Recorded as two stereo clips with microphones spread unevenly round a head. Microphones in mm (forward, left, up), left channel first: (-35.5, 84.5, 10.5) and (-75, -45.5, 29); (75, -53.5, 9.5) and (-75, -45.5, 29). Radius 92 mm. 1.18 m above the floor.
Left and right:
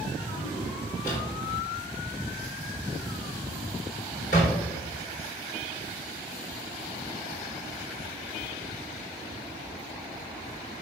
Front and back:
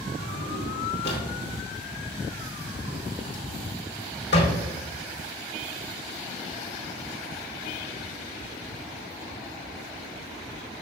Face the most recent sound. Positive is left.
turn(degrees=20)